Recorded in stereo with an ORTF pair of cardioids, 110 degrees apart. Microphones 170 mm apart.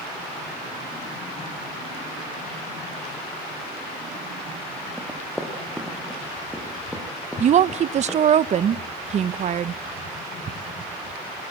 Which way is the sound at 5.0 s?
Straight ahead.